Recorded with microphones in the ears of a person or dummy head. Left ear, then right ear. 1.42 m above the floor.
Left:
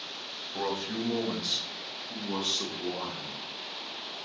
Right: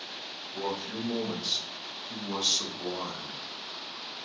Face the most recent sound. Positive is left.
turn(degrees=-50)  # may be behind; listen again after turning